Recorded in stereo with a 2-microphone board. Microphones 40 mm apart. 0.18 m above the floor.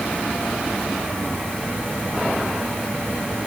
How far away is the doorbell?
No doorbell in this recording.